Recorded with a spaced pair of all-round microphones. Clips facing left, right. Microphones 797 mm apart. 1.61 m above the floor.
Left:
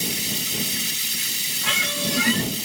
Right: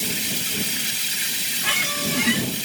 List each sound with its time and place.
0.0 s running water: 80° right
1.6 s a squeak: 5° left (ahead or behind)